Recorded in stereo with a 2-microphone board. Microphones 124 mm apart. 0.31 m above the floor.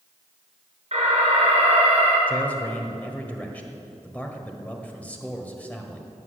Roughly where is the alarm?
Right.